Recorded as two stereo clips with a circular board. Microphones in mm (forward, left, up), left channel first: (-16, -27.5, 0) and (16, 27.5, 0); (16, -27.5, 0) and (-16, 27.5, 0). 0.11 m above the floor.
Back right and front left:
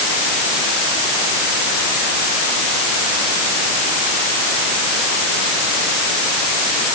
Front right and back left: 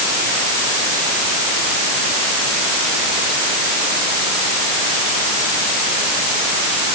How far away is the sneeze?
No sneeze in this recording.